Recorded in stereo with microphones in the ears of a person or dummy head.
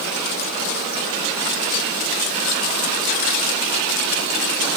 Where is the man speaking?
I don't hear a man speaking.